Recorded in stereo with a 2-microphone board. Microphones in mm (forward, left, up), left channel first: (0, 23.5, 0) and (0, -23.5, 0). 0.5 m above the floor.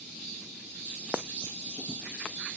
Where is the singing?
No singing in this recording.